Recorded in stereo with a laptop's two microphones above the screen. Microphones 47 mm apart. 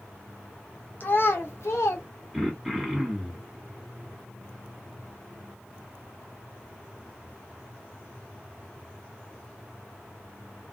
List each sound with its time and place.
1.0 s a child speaking: 40° left (ahead or behind), 0.7 m; by 2.0 s 85° left, 0.8 m
2.3 s throat clearing: 5° right (ahead or behind), 1.4 m